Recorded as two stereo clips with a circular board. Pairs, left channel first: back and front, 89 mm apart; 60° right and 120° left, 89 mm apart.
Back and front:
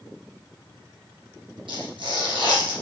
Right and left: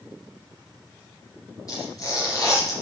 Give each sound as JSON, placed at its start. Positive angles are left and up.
{"t": 1.7, "sound": "tearing paper", "azimuth_deg": -15, "distance_m": 3.0}